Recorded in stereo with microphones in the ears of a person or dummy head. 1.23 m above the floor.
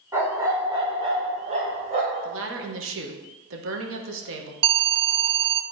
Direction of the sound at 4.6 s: 30° right (ahead or behind).